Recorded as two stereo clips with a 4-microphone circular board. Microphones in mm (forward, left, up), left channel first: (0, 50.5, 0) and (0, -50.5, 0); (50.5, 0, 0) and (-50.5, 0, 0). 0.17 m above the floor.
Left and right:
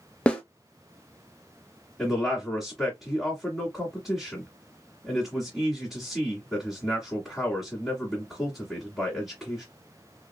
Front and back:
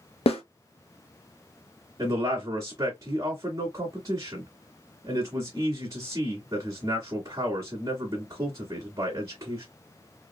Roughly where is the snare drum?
Ahead.